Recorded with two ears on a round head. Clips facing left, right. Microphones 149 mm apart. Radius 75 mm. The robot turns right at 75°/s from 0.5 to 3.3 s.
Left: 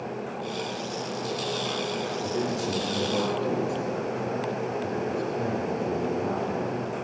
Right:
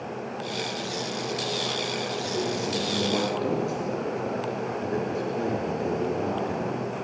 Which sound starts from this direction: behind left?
A man speaking, at 2.2 s.